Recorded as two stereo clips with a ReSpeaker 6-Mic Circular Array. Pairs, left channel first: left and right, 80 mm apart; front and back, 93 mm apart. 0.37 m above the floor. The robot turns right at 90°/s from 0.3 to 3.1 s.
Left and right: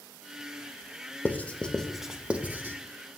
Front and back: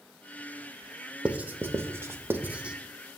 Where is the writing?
115° left, 0.5 m; by 2.8 s 110° right, 0.5 m.